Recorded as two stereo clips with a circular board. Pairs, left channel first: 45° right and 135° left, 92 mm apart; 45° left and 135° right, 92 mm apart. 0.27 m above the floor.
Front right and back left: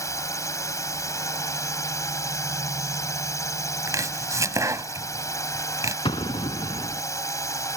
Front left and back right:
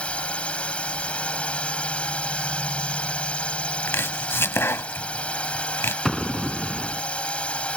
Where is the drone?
25° right.